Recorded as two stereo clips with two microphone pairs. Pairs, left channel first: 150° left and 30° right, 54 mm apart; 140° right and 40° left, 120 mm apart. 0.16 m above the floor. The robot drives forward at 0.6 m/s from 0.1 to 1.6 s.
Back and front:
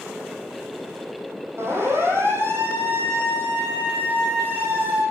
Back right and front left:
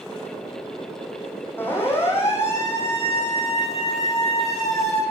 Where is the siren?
70° right, 10 m; by 5.0 s 80° right, 13.5 m.